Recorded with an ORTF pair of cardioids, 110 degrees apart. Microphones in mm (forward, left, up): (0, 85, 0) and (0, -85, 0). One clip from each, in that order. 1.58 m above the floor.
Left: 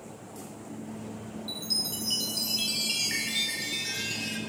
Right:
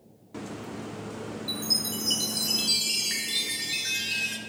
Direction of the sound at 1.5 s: 10° right.